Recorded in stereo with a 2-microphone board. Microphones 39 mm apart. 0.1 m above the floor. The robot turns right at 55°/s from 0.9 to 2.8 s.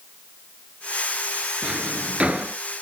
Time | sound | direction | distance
1.6 | a drawer | 30° right (ahead or behind) | 1.1 m